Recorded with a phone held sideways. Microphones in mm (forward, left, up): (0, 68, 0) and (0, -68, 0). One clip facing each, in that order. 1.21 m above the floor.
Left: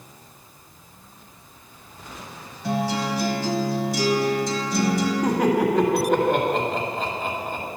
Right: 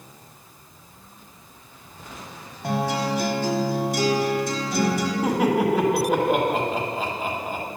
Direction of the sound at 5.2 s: 5° right (ahead or behind).